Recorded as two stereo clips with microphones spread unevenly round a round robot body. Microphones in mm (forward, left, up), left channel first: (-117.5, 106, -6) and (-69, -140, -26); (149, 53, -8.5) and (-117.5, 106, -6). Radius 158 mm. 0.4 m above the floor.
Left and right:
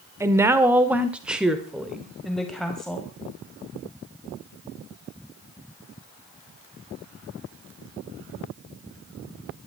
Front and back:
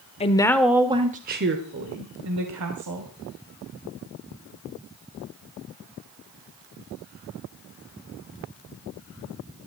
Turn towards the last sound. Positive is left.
turn(degrees=-170)